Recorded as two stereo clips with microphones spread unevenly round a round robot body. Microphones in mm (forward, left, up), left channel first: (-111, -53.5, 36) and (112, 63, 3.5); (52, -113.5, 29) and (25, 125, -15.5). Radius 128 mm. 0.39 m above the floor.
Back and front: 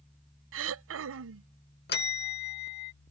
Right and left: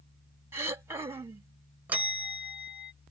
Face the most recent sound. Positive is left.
turn(degrees=165)